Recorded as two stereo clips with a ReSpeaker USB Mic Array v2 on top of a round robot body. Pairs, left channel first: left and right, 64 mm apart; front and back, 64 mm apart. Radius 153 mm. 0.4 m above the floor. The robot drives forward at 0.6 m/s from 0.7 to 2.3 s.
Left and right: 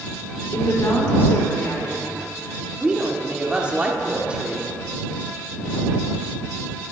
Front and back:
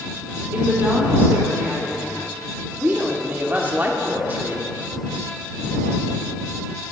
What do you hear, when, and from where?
0.5 s a woman speaking: 125° left, 2 m; by 2.7 s 145° left, 2.5 m
2.8 s a woman speaking: 150° right, 1.5 m